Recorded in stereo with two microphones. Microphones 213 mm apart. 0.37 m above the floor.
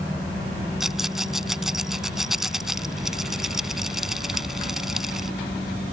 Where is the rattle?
Centre (ahead or behind).